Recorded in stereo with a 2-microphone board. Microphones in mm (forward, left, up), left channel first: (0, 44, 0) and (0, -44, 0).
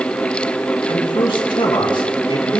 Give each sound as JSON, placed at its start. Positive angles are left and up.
{"t": 0.9, "sound": "a man speaking", "side_deg": 70, "distance_m": 5.0}